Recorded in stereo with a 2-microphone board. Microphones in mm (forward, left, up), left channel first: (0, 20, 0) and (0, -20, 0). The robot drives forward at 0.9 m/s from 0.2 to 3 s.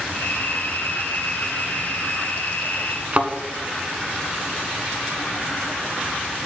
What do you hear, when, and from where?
3.1 s a thud: 30° right (ahead or behind), 1.1 m